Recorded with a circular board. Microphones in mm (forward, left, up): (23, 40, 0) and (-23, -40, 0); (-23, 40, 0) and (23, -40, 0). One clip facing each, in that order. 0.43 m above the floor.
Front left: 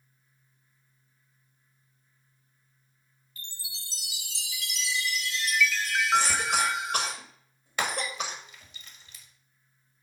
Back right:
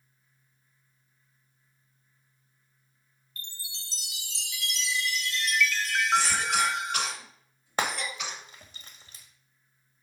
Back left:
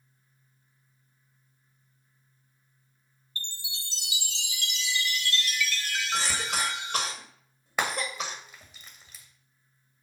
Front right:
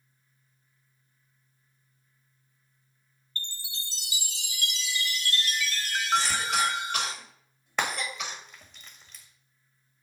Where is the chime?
30° right, 0.6 m.